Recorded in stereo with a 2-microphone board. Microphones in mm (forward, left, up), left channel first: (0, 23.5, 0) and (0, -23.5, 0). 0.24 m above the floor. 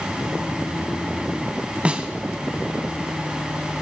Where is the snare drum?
25° right (ahead or behind), 0.9 m.